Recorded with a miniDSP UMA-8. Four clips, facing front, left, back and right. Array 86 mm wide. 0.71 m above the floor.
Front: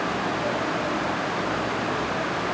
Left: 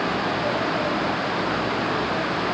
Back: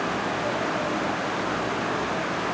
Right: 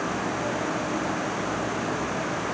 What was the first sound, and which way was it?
Only background noise.